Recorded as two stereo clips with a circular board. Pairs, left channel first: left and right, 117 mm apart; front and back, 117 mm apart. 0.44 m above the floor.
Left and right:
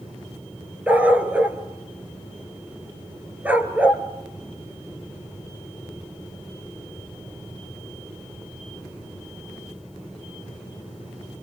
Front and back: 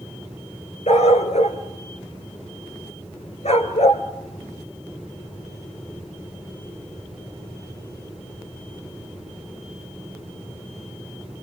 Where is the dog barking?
15° right, 1.8 m.